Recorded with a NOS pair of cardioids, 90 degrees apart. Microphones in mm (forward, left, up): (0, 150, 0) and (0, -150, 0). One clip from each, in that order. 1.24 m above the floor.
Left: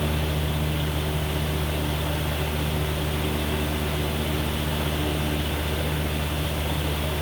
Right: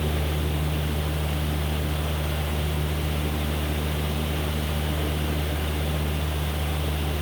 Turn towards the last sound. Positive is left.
turn(degrees=15)